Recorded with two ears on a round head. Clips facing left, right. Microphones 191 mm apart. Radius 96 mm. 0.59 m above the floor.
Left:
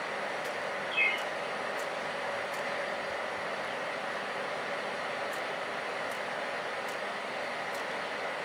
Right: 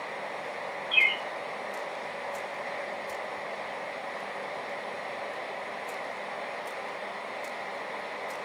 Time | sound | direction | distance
0.9 | a bird | 40° right (ahead or behind) | 1.0 m